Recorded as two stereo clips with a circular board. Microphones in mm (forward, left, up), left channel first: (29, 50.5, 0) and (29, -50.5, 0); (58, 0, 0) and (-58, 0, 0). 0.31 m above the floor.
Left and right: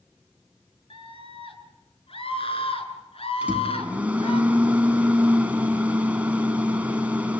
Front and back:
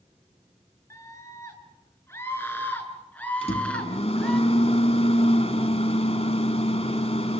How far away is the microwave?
About 2.5 m.